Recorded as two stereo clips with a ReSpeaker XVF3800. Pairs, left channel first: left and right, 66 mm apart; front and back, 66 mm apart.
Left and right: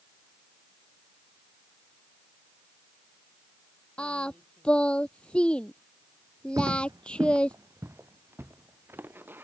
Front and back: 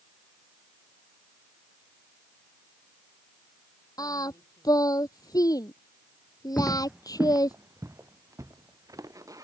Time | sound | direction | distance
4.0 | singing | 15° left | ?
6.6 | footsteps | 65° right | ?